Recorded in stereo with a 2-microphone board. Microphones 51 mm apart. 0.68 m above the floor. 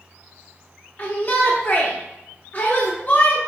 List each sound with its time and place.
1.0 s a shout: 40° left (ahead or behind), 1.3 m